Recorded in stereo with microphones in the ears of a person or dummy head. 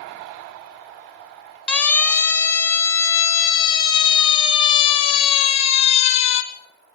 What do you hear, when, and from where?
1.7 s a siren: 10° left (ahead or behind), 4.5 m; by 6.4 s 40° left (ahead or behind), 5 m